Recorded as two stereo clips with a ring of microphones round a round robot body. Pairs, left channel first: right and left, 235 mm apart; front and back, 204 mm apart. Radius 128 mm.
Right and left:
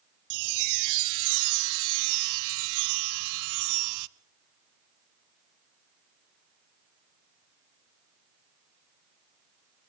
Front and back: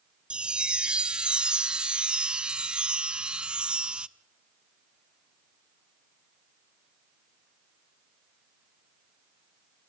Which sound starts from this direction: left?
A chime, at 0.3 s.